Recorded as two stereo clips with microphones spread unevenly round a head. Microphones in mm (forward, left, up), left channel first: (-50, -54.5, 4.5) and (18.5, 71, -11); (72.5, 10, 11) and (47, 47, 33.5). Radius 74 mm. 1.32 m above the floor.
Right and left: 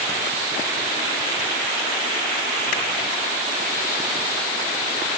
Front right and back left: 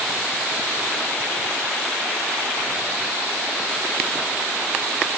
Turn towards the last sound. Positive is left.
No sound to turn to.